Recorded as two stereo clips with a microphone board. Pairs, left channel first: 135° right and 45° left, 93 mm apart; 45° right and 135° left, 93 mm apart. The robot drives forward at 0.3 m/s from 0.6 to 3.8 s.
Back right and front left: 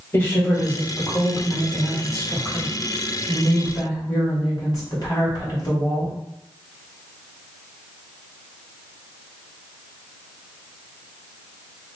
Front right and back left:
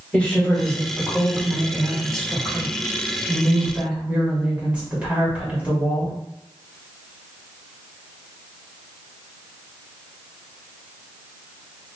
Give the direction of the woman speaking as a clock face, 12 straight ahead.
4 o'clock.